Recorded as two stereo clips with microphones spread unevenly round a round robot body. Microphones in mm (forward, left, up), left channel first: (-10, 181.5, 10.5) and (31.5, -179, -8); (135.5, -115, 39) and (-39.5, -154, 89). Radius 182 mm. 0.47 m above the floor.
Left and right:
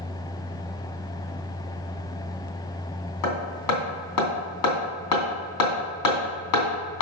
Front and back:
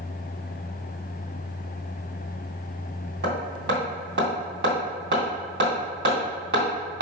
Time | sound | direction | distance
3.2 | hammering | 140° left | 3 m